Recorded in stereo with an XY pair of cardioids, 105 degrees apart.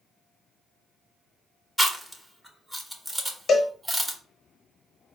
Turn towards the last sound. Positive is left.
turn(degrees=50)